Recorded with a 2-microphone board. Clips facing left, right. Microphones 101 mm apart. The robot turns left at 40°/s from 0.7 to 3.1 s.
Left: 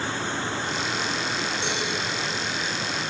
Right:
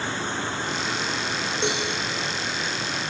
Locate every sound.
1.6 s a cowbell: 65° right (ahead or behind), 4 m; by 1.9 s 75° right (ahead or behind), 4 m